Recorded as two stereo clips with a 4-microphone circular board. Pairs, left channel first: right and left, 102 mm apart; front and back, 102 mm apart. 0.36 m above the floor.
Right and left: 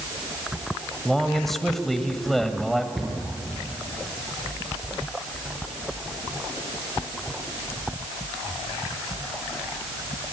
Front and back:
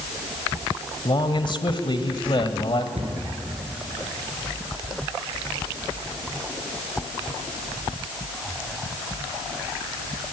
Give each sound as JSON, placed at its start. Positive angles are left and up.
{"t": 1.1, "sound": "a man speaking", "azimuth_deg": -5, "distance_m": 1.7}
{"t": 3.0, "sound": "a cupboard door", "azimuth_deg": 175, "distance_m": 6.5}